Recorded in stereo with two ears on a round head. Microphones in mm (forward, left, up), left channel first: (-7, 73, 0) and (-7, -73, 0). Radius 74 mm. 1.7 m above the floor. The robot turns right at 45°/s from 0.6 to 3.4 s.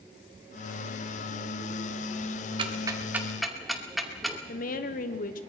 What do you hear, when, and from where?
2.6 s ticking: 30° right (ahead or behind), 2 m; by 4.4 s centre (ahead or behind), 2 m
4.5 s a woman speaking: 55° left (ahead or behind), 1.3 m